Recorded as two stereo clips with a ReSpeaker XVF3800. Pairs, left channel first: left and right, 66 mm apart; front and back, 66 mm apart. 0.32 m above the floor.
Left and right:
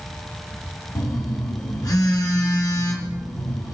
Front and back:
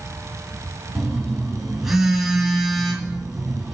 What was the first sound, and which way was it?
A phone buzzing, 95° left.